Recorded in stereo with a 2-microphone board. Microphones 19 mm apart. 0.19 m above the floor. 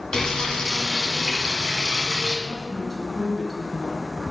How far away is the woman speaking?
About 1.8 m.